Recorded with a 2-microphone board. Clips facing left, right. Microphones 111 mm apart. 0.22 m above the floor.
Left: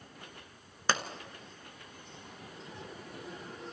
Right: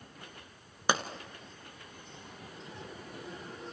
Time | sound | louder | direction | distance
0.9 | a pop | right 2 dB | 15° right (ahead or behind) | 1.2 m